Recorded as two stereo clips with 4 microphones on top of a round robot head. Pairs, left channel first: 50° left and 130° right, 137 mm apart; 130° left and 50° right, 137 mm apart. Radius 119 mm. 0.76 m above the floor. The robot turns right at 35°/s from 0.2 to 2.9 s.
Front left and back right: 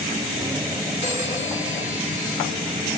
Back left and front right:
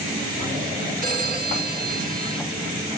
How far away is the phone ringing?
About 5 m.